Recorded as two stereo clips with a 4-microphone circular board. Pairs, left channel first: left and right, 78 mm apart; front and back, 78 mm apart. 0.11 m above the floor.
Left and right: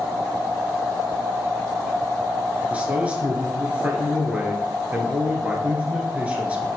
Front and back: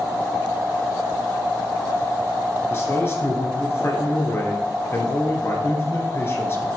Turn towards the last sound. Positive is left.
turn(degrees=-30)